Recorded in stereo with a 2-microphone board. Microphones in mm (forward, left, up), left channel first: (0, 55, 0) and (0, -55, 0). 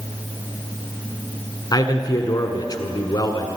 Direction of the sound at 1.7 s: 40° left (ahead or behind).